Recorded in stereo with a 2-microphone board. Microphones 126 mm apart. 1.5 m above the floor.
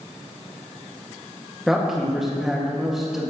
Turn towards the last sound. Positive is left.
turn(degrees=-5)  # may be behind; listen again after turning